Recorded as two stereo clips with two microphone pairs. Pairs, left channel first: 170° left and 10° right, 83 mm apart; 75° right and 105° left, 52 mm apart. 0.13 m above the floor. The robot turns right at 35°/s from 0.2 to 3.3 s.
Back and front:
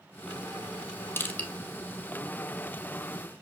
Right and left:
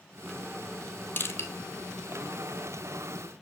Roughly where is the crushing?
Behind right.